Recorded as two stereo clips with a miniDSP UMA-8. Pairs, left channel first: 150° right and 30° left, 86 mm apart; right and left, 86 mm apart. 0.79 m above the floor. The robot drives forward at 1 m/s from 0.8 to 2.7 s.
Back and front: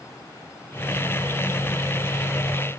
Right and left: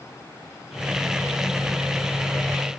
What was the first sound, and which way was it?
Only background noise.